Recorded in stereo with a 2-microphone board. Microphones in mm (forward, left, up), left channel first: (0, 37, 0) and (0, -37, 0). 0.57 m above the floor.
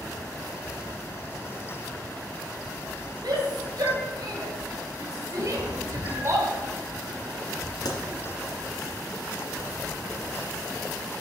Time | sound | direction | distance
3.2 | a shout | 65° right (ahead or behind) | 3.5 m
5.4 | a cat meowing | 60° right (ahead or behind) | 3.5 m
7.8 | a pop | 70° left (ahead or behind) | 2.5 m